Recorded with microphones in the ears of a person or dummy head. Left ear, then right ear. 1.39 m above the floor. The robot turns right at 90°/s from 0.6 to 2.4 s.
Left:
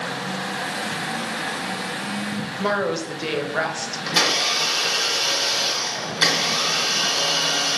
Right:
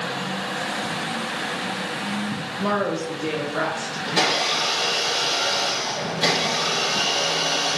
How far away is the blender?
About 1.9 m.